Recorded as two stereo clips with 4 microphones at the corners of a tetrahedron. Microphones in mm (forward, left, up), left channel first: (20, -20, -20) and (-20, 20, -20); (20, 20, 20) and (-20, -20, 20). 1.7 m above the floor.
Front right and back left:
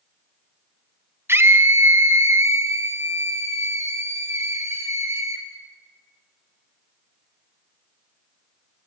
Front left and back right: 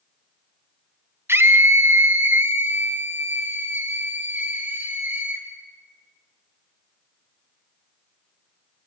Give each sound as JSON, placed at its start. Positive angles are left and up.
{"t": 1.3, "sound": "a scream", "azimuth_deg": 180, "distance_m": 1.4}